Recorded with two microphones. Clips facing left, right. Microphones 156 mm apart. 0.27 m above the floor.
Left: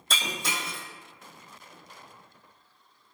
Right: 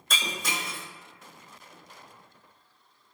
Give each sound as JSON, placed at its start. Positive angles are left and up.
{"t": 0.1, "sound": "breaking glass", "side_deg": 30, "distance_m": 2.0}